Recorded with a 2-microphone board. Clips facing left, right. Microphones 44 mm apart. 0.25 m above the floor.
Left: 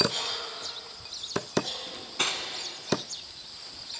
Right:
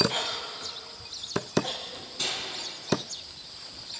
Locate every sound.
0.1 s a cough: 35° right (ahead or behind), 1.3 m
1.9 s cutlery clinking: 50° left (ahead or behind), 1.3 m